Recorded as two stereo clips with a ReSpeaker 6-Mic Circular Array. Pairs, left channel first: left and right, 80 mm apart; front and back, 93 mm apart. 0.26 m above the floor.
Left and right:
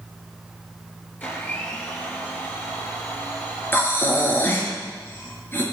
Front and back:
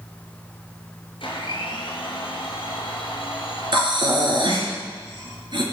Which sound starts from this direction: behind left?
Breathing, at 3.7 s.